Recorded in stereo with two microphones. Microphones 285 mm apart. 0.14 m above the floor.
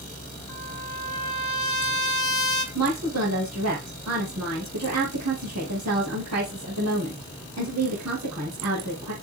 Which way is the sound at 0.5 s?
85° left.